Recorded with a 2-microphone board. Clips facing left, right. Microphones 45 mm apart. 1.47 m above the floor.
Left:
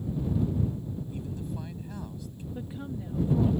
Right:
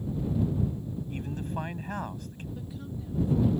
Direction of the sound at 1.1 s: 55° right (ahead or behind).